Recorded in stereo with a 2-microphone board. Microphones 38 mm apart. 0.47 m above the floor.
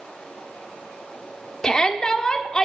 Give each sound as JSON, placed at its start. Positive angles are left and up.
{"t": 1.6, "sound": "a shout", "side_deg": 20, "distance_m": 0.8}